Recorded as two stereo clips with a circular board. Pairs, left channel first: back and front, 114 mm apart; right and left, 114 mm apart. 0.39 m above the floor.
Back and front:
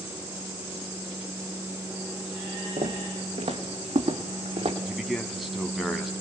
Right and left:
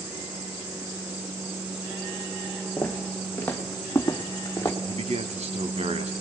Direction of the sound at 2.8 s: 10° right.